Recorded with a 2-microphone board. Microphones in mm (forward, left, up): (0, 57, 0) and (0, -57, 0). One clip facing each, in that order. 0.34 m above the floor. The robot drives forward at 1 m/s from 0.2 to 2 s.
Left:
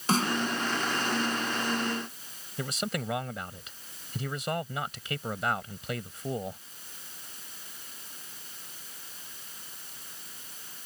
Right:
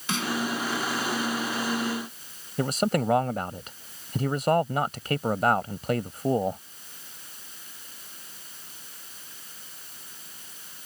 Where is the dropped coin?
No dropped coin in this recording.